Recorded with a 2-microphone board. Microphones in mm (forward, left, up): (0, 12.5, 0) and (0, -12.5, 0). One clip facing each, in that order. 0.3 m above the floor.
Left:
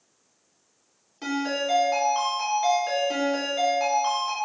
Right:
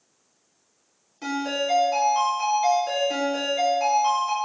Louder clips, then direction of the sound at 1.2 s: Right 1 dB; 10° left (ahead or behind).